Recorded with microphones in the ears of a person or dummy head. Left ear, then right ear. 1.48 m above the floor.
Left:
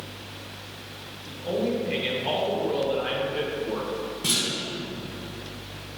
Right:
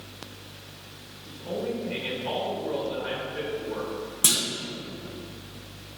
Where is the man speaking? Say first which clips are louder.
Left 4 dB; 15° left (ahead or behind), 1.8 m.